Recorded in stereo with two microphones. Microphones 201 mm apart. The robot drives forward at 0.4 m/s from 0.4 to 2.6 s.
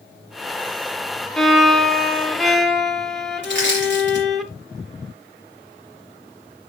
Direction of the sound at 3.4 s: 65° right (ahead or behind).